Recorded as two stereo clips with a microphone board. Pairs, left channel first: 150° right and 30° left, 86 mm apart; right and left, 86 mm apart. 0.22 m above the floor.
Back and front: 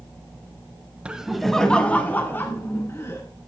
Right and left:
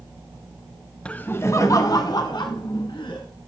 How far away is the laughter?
About 1.0 m.